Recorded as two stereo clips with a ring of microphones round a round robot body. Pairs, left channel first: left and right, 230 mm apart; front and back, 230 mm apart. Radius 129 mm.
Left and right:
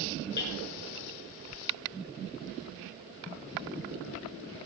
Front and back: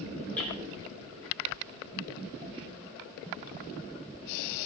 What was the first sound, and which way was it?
Hammering, 85° left.